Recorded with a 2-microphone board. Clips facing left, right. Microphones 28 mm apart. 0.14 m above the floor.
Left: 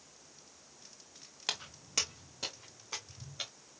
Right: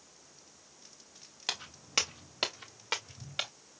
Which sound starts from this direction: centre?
Footsteps, at 1.5 s.